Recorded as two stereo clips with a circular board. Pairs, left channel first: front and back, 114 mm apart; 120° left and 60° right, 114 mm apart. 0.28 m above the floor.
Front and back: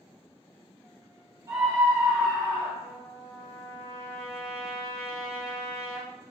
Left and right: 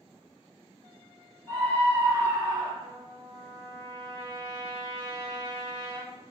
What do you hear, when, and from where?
1.5 s a scream: 170° left, 1.6 m
2.8 s a trumpet: 35° right, 1.0 m